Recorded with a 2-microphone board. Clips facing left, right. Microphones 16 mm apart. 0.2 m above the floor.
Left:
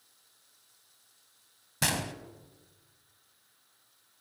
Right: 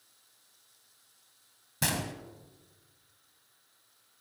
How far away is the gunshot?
About 0.9 m.